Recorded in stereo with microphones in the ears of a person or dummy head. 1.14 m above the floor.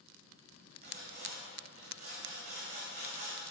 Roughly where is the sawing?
Right.